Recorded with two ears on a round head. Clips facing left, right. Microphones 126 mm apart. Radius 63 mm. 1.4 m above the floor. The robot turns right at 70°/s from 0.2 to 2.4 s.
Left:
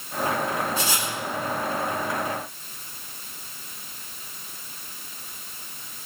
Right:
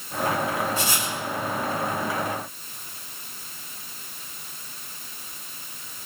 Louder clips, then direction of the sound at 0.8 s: Even; 80° left.